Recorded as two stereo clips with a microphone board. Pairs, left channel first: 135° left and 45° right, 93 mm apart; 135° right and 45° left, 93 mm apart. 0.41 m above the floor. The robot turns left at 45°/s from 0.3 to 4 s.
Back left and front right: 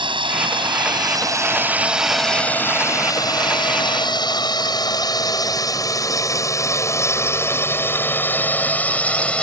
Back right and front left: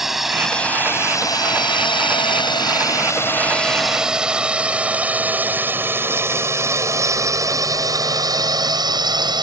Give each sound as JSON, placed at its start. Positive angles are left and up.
{"t": 0.0, "sound": "a drone", "azimuth_deg": -40}